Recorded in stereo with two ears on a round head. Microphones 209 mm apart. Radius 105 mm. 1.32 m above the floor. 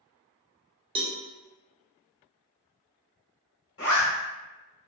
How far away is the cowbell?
About 0.5 m.